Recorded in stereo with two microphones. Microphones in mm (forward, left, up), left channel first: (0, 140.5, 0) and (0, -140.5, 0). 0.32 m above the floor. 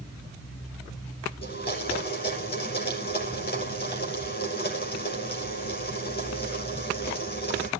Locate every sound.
1.4 s a blender: 35° left (ahead or behind), 6 m